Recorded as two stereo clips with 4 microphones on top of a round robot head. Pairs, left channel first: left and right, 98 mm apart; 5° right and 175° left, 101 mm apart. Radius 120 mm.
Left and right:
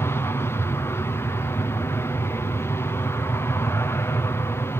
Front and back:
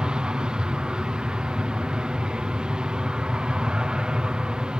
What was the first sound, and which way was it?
An aircraft, 105° left.